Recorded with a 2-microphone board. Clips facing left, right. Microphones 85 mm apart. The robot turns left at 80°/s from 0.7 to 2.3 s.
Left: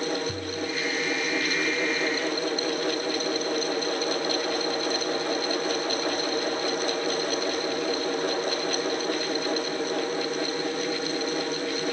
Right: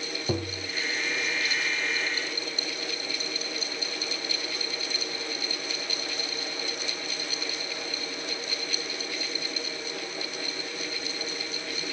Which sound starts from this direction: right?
Tapping, at 0.3 s.